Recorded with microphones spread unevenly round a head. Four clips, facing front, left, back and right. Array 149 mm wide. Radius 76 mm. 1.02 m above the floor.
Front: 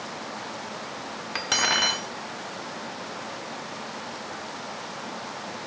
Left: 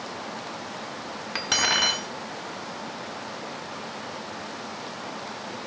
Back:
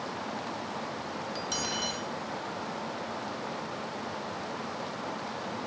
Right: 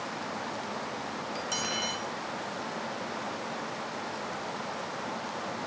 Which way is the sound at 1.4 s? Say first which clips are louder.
Left 11 dB, front 12 dB; 40° left.